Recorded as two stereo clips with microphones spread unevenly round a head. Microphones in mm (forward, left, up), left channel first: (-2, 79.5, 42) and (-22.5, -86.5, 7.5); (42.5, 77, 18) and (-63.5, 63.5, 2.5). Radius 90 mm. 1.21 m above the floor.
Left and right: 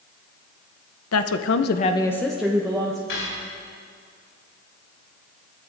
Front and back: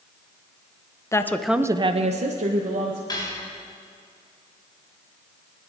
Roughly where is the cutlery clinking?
Ahead left.